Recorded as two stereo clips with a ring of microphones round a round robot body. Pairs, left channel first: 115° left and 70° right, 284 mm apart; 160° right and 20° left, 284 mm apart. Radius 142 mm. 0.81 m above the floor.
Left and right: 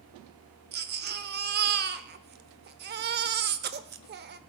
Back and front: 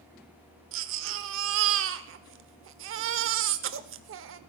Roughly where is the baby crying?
Ahead.